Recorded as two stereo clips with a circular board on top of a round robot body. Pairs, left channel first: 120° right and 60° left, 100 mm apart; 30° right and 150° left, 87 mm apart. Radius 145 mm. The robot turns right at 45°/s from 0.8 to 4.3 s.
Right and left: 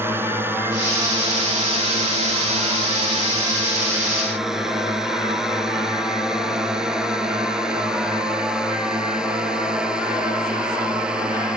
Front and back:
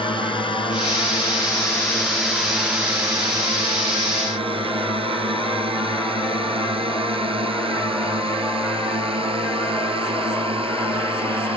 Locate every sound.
0.0 s a drone: 10° right; by 11.6 s 140° left